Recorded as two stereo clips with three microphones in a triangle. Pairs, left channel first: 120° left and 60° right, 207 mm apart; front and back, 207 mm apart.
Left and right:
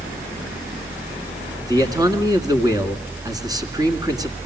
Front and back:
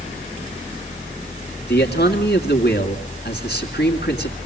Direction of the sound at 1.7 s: 10° left.